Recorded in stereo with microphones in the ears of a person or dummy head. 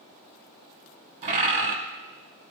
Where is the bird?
35° right (ahead or behind), 1.0 m.